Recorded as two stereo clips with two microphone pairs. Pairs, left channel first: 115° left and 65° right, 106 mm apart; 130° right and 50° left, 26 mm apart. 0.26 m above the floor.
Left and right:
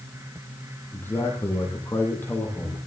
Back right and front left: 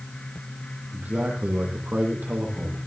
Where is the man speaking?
50° left, 9 m; by 2.8 s 45° left, 11 m.